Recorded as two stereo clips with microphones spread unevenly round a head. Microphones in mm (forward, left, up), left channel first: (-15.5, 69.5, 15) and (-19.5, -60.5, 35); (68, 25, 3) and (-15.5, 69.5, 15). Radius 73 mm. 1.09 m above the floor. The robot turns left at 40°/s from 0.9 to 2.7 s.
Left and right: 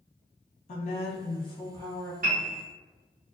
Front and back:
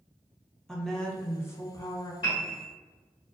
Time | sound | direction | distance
0.7 | a woman speaking | 55° left | 0.7 m
2.2 | a piano | 70° right | 1.2 m